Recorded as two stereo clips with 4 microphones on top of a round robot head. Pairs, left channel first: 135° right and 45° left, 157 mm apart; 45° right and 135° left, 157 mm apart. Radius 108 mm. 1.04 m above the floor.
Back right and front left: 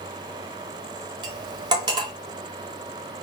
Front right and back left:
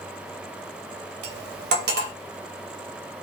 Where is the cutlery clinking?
110° left, 0.7 m.